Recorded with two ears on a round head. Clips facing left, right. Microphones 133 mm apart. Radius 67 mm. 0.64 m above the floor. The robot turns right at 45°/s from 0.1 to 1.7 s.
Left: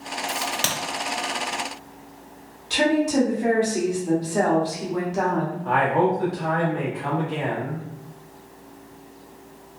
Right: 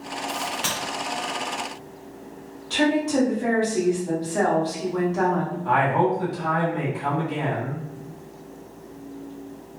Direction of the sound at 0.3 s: 50° left (ahead or behind).